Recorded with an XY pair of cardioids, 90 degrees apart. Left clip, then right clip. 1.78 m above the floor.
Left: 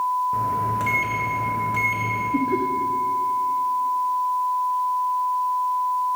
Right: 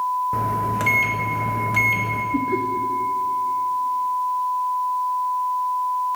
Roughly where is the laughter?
Ahead.